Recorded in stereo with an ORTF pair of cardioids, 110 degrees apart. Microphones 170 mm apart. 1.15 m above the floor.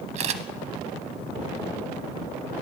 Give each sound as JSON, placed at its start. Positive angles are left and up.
{"t": 0.1, "sound": "a camera shutter", "azimuth_deg": -40, "distance_m": 0.7}